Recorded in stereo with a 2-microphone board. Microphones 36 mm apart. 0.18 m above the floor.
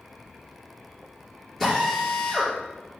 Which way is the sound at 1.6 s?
5° left (ahead or behind).